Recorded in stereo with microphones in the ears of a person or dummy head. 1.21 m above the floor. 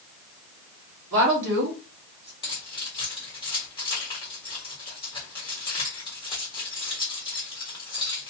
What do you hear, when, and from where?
1.1 s a woman speaking: 65° right (ahead or behind), 1.0 m; by 2.3 s 25° right (ahead or behind), 1.0 m
2.4 s keys jangling: 25° left (ahead or behind), 1.3 m